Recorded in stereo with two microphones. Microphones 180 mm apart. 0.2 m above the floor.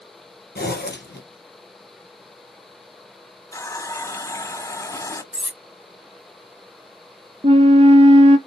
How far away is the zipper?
About 3 m.